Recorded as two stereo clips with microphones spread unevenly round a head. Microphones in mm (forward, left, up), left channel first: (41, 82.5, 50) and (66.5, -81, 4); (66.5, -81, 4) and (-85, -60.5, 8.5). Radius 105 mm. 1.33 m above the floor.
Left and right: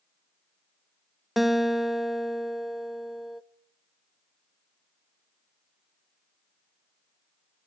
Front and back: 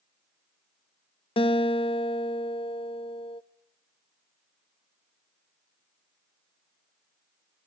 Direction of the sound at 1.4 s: 30° left.